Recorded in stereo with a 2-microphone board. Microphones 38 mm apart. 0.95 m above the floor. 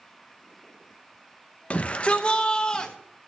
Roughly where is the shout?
Left.